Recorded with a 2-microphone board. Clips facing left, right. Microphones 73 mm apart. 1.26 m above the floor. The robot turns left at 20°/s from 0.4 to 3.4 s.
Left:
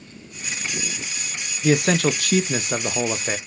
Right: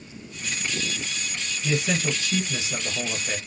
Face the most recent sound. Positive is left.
turn(degrees=40)